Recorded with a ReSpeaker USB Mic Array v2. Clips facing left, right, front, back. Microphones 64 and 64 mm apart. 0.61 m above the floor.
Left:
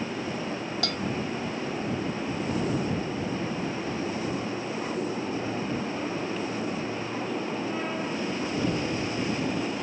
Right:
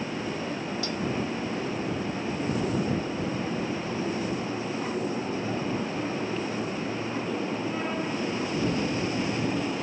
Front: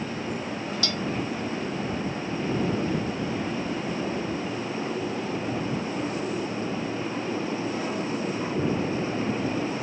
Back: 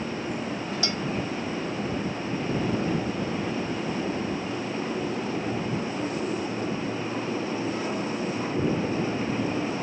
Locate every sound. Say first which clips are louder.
0.8 s a bell: even, even; 115° left